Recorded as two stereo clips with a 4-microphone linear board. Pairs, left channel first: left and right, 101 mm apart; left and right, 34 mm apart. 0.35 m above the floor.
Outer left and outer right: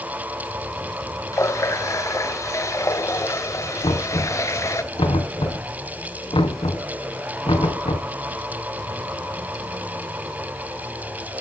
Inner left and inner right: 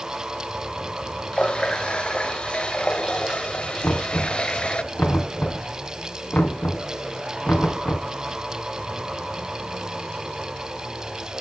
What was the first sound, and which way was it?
A running tap, 30° left (ahead or behind).